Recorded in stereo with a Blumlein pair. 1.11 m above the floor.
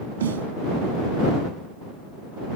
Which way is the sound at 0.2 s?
65° right.